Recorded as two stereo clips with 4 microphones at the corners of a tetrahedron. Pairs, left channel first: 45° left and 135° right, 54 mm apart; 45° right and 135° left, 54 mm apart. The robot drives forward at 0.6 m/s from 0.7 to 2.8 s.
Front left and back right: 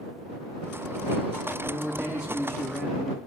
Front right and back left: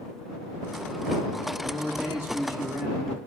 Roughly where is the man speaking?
Behind left.